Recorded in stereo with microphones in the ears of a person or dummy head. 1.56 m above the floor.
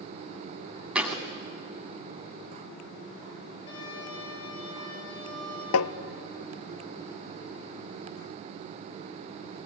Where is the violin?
25° left (ahead or behind), 8 m.